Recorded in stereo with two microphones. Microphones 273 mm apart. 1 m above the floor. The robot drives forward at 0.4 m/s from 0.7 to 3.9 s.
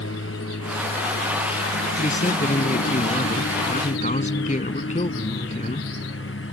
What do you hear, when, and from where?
0.0 s a lawn mower: 50° left (ahead or behind)
2.0 s a man speaking: 25° left (ahead or behind)